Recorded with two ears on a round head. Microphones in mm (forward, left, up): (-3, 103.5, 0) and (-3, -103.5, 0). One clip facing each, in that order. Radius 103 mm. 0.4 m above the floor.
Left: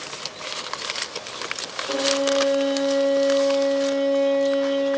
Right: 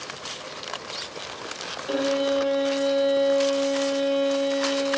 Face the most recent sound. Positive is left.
turn(degrees=-5)  # may be behind; listen again after turning